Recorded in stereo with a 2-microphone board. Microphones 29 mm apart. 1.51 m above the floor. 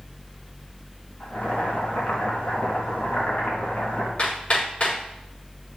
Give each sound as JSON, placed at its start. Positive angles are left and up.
{"t": 1.2, "sound": "boiling", "side_deg": 60, "distance_m": 4.5}
{"t": 4.2, "sound": "hammering", "side_deg": 45, "distance_m": 5.0}